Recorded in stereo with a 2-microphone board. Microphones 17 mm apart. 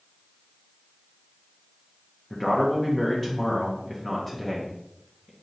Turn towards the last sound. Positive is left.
turn(degrees=15)  # may be behind; listen again after turning